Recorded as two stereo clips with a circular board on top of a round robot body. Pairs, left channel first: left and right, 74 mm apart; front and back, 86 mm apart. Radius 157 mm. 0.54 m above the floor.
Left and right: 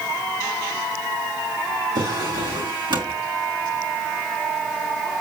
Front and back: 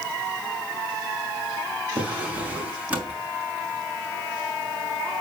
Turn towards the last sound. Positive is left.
turn(degrees=-105)